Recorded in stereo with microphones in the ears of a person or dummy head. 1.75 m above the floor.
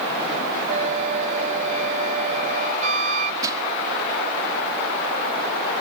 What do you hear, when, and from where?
0.7 s a flute: 45° right (ahead or behind)
3.4 s crushing: 20° right (ahead or behind)